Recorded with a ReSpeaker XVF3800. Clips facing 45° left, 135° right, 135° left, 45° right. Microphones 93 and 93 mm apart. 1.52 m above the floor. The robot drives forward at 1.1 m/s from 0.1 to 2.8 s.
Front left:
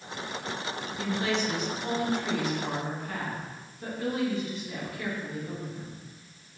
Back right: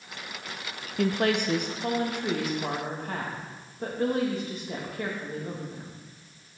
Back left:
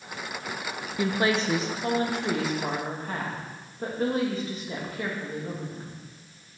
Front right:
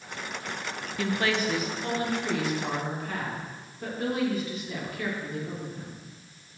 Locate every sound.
1.0 s a woman speaking: 150° right, 0.7 m; by 6.0 s 175° right, 2.5 m